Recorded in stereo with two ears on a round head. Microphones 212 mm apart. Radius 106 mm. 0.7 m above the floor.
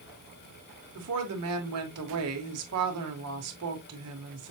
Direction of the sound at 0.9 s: 70° right (ahead or behind).